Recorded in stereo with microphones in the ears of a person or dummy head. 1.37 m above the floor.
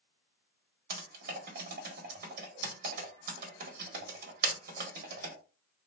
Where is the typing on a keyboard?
55° right (ahead or behind), 1.5 m.